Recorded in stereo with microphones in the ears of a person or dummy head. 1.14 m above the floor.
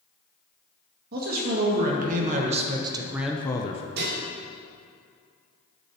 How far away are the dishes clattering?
About 1.7 m.